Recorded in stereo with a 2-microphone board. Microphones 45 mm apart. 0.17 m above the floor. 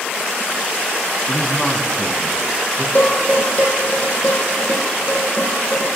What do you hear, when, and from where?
1.3 s a man speaking: 20° left (ahead or behind), 1.3 m; by 2.9 s 25° right (ahead or behind), 1.7 m
3.0 s dishes clattering: 40° left (ahead or behind), 4.5 m